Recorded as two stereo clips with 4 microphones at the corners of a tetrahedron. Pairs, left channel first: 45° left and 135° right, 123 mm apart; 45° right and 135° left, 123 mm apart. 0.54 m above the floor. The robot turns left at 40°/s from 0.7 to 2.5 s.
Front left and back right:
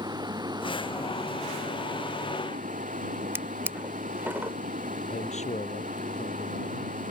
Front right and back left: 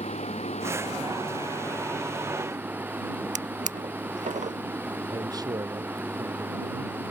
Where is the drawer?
150° left.